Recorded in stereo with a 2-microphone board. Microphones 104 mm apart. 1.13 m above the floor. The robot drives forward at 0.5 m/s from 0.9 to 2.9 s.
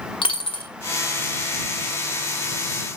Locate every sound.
0.2 s a dropped coin: 60° left (ahead or behind), 1.2 m